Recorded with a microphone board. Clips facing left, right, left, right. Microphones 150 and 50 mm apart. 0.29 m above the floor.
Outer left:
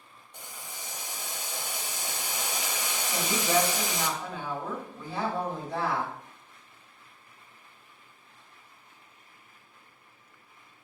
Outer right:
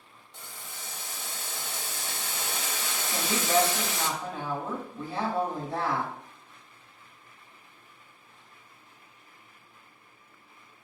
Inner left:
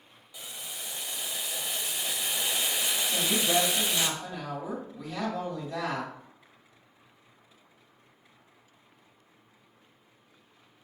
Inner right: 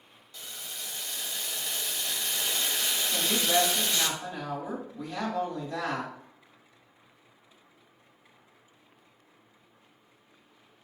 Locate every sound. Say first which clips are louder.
0.3 s boiling: outer left 1 dB, even; 15° left (ahead or behind), 0.5 m
3.1 s a woman speaking: outer right 1 dB, even; centre (ahead or behind), 1.6 m